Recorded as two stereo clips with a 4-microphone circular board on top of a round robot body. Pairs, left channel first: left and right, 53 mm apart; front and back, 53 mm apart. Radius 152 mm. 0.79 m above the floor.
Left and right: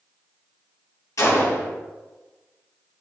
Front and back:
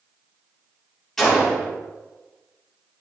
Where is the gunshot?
85° left, 4.5 m.